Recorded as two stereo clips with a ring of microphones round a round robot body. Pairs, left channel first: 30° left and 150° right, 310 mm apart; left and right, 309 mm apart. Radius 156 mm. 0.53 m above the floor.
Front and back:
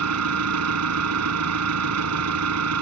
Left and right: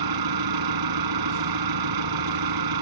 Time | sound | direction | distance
0.0 | an engine running | 110° right | ?